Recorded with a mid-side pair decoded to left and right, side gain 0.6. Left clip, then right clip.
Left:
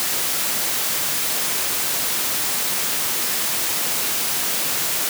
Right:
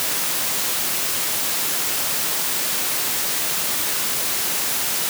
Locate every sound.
Only background noise.